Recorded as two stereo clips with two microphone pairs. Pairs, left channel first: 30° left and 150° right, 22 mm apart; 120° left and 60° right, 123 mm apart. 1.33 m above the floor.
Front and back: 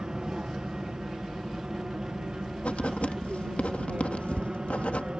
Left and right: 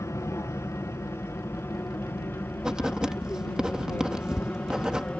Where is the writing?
25° left.